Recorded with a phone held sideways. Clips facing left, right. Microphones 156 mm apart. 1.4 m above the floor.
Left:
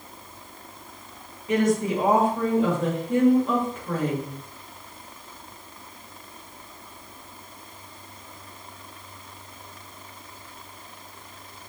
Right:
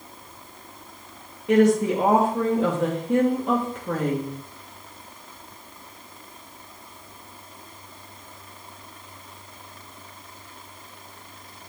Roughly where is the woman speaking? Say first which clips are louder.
Right 4 dB; right.